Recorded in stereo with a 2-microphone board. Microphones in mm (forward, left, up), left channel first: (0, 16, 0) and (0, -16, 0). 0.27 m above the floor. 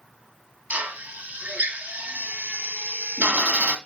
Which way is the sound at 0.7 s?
60° right (ahead or behind).